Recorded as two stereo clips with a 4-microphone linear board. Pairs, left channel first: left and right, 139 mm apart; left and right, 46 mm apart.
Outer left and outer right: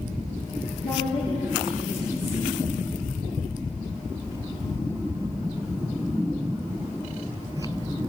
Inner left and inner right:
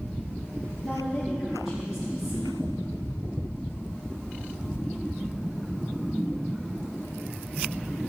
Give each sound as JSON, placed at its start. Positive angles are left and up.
{"t": 0.8, "sound": "a woman speaking", "side_deg": -10, "distance_m": 5.5}